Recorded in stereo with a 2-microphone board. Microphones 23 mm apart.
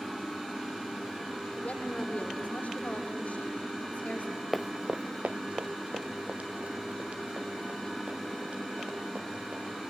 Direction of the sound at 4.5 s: 5° left (ahead or behind).